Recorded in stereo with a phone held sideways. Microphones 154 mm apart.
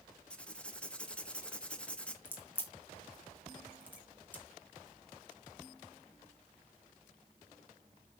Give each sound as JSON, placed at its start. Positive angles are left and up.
{"t": 0.3, "sound": "writing", "side_deg": 5, "distance_m": 0.8}
{"t": 2.2, "sound": "a crack", "side_deg": 10, "distance_m": 2.5}